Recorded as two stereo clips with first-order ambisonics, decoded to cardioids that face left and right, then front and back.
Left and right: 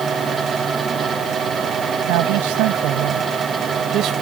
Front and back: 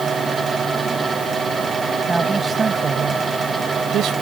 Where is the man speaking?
100° right; by 4.1 s 135° right.